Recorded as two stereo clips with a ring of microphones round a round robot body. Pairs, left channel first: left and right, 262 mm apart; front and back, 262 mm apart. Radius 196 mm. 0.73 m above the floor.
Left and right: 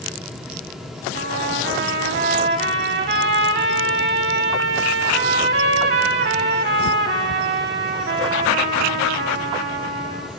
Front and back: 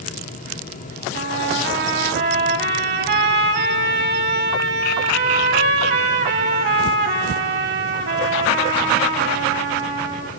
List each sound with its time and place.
1.1 s a trumpet: 135° right, 0.7 m